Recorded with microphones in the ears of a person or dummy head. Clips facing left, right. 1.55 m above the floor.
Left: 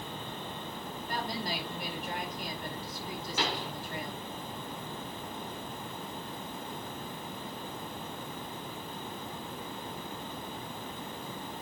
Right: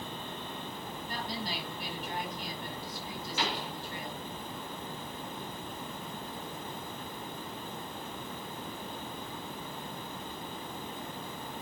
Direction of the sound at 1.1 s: 50° left (ahead or behind).